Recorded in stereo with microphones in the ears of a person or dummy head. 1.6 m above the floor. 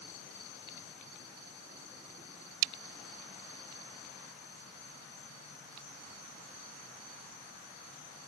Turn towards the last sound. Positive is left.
No sound to turn to.